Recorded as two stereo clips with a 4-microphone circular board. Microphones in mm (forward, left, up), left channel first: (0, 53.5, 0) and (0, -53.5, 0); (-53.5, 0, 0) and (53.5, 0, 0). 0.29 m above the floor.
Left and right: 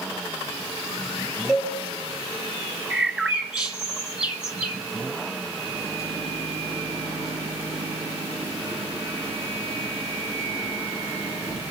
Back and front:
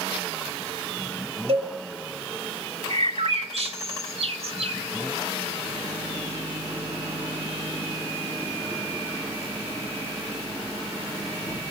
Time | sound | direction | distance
1.5 | a cowbell | 5° right | 3 m
2.9 | a bird | 5° right | 1.3 m
5.7 | a microwave | 70° right | 6.5 m